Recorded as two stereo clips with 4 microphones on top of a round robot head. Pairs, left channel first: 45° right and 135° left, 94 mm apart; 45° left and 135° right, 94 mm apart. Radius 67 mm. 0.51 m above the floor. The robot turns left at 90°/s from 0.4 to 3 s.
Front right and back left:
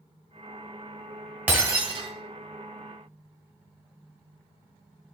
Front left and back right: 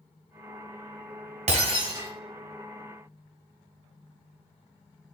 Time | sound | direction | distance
1.5 | breaking glass | 150° right | 1.6 m